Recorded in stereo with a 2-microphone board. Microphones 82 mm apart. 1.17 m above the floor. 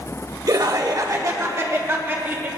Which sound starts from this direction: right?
Laughter, at 0.5 s.